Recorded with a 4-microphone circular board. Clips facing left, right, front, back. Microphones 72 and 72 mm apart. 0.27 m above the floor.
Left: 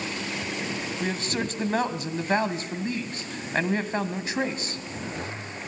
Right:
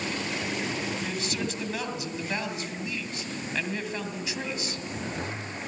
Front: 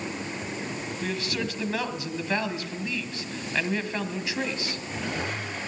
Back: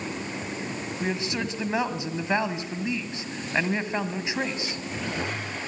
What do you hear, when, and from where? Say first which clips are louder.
1.0 s a man speaking: left 3 dB, back 2 dB; 120° left, 1.9 m